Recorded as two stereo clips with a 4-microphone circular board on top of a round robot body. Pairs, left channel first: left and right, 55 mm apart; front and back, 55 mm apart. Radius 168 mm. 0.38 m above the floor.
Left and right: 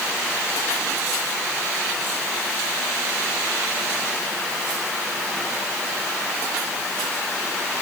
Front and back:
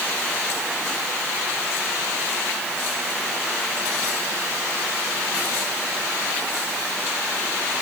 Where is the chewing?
I don't hear chewing.